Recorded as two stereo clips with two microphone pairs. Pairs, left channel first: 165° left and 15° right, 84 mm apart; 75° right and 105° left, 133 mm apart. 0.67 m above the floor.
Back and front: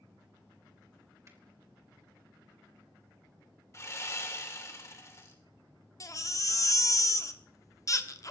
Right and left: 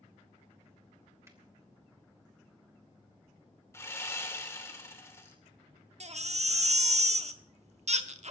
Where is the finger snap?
35° left, 2.5 m.